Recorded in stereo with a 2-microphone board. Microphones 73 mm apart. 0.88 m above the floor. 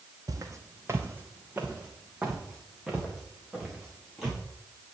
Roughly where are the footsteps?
Right.